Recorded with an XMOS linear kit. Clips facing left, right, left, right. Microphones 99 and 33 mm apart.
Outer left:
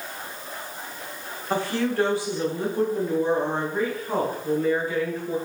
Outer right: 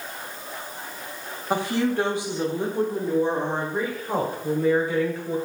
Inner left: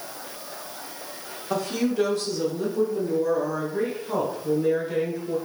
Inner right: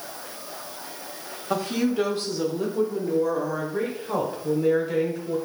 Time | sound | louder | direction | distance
1.5 | a woman speaking | outer right 1 dB, inner right 1 dB | 15° right (ahead or behind) | 1.0 m